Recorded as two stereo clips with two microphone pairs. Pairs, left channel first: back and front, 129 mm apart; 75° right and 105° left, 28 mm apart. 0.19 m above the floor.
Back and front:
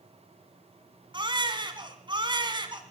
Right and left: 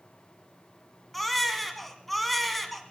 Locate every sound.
1.1 s a baby crying: 15° left, 1.3 m